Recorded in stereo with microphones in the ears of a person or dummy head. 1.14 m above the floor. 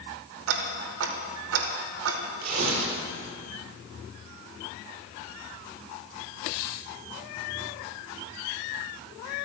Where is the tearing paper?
55° right (ahead or behind), 3 m.